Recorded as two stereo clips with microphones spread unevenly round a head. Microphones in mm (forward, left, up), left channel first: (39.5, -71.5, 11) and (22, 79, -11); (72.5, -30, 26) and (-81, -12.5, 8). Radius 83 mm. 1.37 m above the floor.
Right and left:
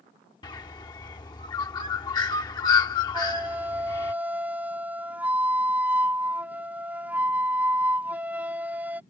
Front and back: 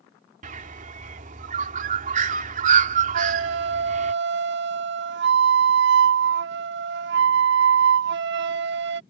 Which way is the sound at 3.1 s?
Straight behind.